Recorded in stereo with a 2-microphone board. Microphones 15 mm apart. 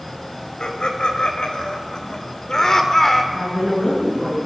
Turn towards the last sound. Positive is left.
turn(degrees=30)  # may be behind; listen again after turning